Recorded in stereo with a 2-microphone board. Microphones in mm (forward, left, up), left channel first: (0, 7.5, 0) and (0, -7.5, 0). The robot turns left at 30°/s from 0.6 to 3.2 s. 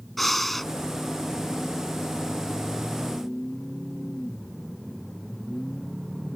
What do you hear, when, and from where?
0.2 s breathing: 10° left (ahead or behind); by 0.7 s 15° left (ahead or behind)